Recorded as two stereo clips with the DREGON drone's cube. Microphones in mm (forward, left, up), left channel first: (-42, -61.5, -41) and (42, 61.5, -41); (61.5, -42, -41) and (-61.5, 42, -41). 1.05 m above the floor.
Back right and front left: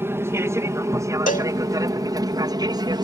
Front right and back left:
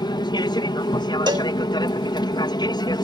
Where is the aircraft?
5° right; by 3.0 s 10° left.